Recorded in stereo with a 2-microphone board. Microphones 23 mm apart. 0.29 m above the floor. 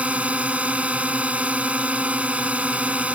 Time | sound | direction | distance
0.0 | a drone | 60° right (ahead or behind) | ?